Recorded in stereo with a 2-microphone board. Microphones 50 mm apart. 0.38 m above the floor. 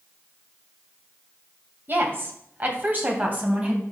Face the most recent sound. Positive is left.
turn(degrees=-35)  # may be behind; listen again after turning